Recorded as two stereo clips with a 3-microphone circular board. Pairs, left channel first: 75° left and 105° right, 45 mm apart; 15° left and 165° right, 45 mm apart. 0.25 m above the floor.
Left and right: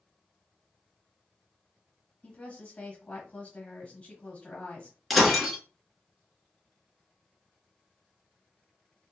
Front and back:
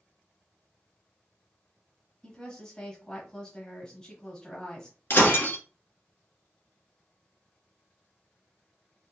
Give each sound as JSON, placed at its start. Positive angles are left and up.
{"t": 2.2, "sound": "a woman speaking", "azimuth_deg": 65, "distance_m": 1.0}
{"t": 5.1, "sound": "breaking glass", "azimuth_deg": -15, "distance_m": 1.0}